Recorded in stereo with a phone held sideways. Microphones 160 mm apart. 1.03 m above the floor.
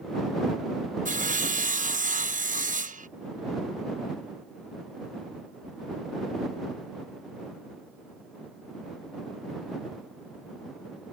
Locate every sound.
1.1 s sawing: 55° right (ahead or behind)